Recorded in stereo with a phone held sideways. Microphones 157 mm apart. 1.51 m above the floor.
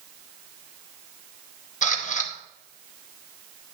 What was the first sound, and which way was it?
A camera shutter, 50° left (ahead or behind).